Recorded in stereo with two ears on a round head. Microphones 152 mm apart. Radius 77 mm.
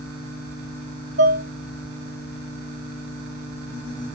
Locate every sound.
1.2 s dishes clattering: 80° right, 1.9 m